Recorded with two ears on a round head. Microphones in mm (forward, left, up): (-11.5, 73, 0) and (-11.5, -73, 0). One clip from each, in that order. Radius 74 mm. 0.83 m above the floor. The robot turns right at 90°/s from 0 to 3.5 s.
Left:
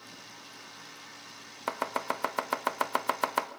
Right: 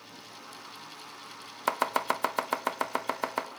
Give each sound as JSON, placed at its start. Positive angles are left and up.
{"t": 1.7, "sound": "chopping", "side_deg": -25, "distance_m": 1.0}